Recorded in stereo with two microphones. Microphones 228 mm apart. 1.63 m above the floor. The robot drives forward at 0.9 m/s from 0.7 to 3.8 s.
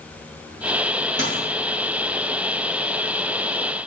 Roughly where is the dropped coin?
Left.